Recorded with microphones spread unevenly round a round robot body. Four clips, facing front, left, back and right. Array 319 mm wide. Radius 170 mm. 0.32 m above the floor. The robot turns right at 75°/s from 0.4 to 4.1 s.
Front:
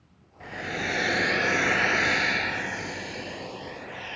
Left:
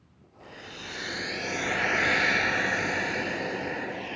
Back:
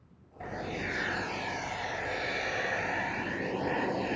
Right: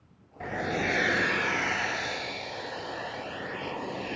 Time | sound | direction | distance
0.4 | a hair dryer | 95° right | ?